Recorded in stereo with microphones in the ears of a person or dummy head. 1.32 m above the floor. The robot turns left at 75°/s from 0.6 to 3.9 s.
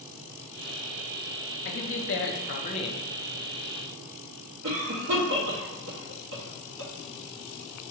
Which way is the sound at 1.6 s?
120° left.